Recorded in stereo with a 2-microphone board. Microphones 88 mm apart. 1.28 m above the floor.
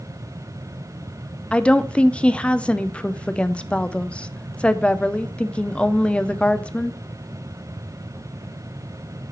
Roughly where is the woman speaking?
Centre.